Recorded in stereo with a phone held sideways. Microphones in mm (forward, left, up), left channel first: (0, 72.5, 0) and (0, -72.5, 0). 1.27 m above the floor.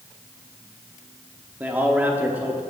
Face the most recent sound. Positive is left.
turn(degrees=-10)  # may be behind; listen again after turning